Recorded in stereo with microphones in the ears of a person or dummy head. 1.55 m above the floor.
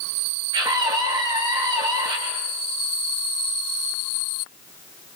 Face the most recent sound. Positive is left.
turn(degrees=-25)  # may be behind; listen again after turning